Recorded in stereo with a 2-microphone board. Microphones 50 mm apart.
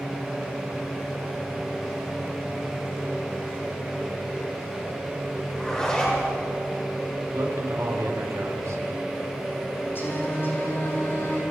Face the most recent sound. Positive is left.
turn(degrees=50)  # may be behind; listen again after turning